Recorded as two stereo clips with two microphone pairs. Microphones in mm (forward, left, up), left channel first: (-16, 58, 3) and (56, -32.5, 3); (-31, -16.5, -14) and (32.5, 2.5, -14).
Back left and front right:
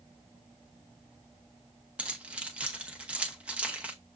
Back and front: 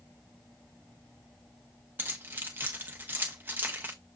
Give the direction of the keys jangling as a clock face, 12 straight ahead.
11 o'clock.